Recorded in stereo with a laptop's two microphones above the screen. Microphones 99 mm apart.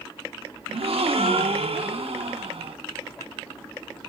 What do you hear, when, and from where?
0.7 s a gasp: 80° right, 0.8 m